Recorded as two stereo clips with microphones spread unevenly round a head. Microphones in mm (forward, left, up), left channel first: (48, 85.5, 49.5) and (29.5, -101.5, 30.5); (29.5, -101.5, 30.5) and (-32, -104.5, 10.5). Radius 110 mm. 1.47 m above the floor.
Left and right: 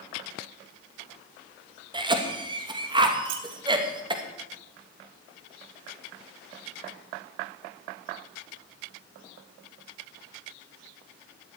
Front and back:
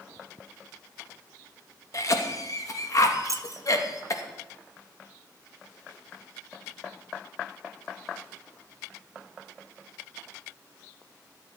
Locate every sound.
1.9 s a cough: 30° right, 2.5 m
3.2 s keys jangling: 135° right, 1.3 m